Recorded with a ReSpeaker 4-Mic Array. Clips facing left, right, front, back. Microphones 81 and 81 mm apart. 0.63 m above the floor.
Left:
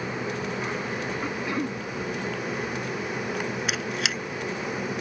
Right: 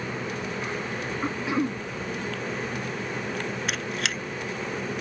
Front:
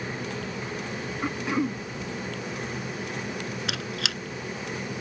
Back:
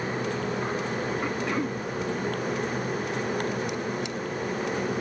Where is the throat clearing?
75° right.